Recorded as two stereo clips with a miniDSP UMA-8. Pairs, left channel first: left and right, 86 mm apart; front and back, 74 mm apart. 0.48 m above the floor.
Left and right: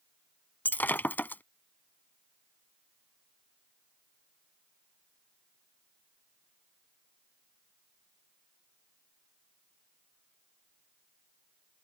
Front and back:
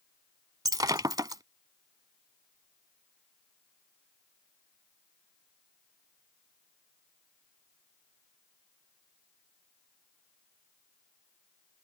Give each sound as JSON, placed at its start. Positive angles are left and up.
{"t": 0.7, "sound": "breaking glass", "azimuth_deg": 160}